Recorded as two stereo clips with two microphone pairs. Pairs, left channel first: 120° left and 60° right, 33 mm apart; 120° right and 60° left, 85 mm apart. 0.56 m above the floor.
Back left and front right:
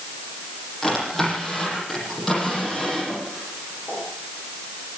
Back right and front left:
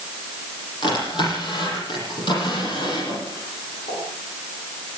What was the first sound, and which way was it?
A drawer, 150° right.